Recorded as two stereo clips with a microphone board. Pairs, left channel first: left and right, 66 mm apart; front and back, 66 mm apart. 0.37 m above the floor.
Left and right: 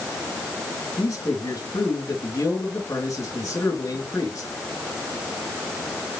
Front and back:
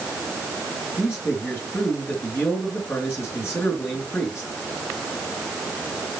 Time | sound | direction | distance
1.0 | a man speaking | 50° left | 3.5 m